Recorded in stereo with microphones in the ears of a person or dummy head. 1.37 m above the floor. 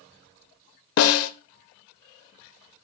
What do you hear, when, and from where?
1.0 s a snare drum: 70° left (ahead or behind), 0.8 m